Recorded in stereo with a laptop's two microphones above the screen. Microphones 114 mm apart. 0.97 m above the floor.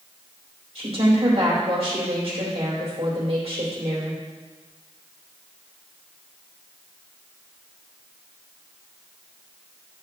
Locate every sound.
0.8 s a woman speaking: 55° right (ahead or behind), 3 m